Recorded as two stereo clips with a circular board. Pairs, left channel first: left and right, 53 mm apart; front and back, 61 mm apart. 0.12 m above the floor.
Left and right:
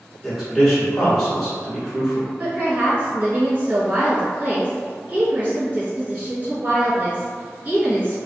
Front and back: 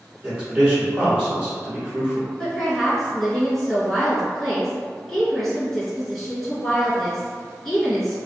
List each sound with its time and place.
0.2 s a man speaking: 160° left, 1.2 m
2.4 s a woman speaking: 85° right, 1.4 m